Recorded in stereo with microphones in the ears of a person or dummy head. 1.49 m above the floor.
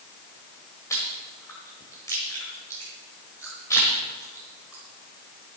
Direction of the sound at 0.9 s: 10° left (ahead or behind).